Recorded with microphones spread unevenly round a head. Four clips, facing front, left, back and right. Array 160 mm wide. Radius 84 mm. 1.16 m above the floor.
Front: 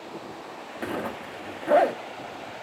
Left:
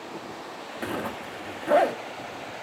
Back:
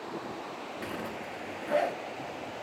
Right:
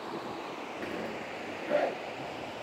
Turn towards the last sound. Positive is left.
turn(degrees=40)